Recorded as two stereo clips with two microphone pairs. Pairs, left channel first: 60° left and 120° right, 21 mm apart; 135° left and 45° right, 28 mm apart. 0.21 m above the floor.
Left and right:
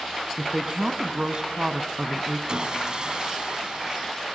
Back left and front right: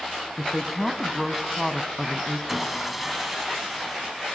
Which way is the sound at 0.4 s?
140° right.